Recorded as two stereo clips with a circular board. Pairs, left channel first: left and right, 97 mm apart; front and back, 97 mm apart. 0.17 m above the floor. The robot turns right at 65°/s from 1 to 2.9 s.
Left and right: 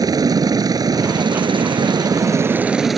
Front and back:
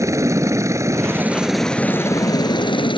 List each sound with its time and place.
0.0 s a helicopter: 130° right; by 3.0 s straight ahead